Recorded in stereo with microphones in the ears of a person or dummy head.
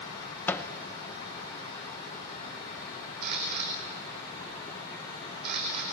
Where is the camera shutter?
50° right (ahead or behind), 5 m.